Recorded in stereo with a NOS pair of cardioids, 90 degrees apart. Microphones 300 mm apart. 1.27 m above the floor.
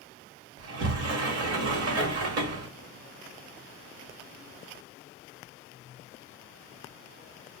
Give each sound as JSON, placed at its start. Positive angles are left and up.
{"t": 0.6, "sound": "a sliding door", "azimuth_deg": -55, "distance_m": 1.1}